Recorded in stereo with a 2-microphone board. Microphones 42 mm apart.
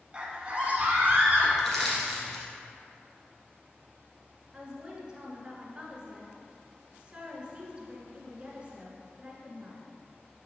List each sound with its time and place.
0.1 s a scream: 25° right (ahead or behind), 1.4 m; by 1.5 s 40° right (ahead or behind), 2 m
1.6 s crushing: 5° left (ahead or behind), 2.0 m
4.5 s a woman speaking: 20° right (ahead or behind), 1.7 m